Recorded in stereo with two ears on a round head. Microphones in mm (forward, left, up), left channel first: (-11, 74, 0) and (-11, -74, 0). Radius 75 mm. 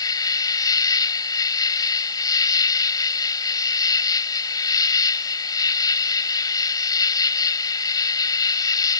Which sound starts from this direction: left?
An insect, at 0.0 s.